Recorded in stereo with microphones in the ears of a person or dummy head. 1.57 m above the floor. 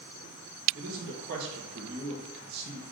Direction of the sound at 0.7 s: 55° right (ahead or behind).